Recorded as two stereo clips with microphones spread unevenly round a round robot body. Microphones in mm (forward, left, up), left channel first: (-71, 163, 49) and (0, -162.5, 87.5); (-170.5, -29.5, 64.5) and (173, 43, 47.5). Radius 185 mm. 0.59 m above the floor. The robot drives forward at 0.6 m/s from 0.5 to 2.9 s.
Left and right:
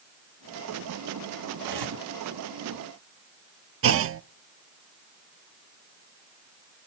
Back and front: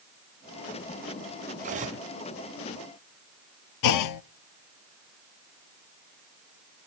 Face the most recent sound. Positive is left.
turn(degrees=-135)